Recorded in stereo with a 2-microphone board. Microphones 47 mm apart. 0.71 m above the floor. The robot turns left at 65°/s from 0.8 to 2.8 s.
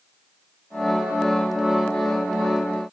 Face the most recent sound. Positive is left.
No sound to turn to.